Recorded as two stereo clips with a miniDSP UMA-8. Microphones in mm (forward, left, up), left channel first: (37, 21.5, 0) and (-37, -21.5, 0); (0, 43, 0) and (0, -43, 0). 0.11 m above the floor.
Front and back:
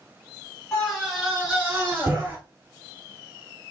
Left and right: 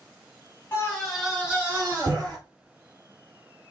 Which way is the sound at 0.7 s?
85° left.